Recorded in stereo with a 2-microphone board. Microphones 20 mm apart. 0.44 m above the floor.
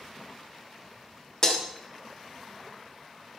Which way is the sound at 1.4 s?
25° left (ahead or behind).